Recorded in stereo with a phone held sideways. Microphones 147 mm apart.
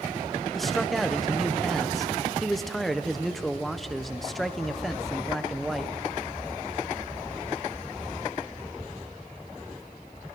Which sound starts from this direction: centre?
A man speaking, at 0.5 s.